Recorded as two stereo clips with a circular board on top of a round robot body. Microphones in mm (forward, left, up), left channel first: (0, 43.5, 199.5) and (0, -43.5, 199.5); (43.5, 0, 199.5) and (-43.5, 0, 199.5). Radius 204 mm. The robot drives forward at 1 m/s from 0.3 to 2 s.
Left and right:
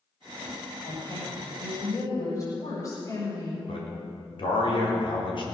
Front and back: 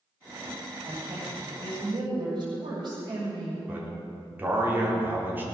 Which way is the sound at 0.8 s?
135° left.